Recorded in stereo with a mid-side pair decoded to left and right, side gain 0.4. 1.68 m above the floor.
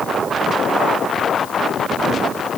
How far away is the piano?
No piano in this recording.